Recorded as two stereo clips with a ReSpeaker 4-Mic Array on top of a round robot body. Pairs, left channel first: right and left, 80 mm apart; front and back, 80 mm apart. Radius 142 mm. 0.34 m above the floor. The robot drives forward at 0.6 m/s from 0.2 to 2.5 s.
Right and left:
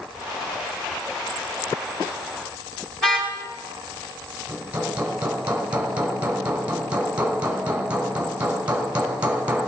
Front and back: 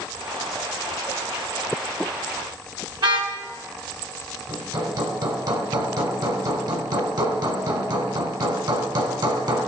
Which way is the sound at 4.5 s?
160° left.